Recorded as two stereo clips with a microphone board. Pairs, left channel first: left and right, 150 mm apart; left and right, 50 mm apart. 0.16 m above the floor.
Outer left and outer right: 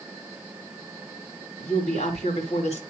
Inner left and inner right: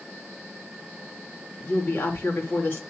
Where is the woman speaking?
50° left (ahead or behind), 2.5 m.